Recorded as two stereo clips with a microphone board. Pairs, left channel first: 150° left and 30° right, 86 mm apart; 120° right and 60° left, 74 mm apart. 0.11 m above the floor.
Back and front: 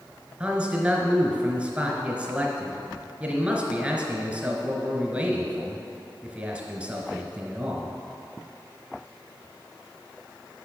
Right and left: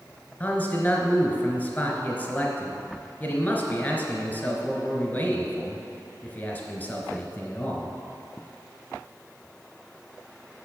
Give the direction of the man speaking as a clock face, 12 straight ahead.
3 o'clock.